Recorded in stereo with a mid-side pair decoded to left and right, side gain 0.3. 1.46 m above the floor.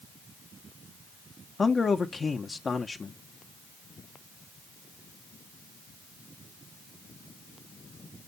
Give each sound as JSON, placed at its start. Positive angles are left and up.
{"t": 1.6, "sound": "a man speaking", "azimuth_deg": 50, "distance_m": 1.1}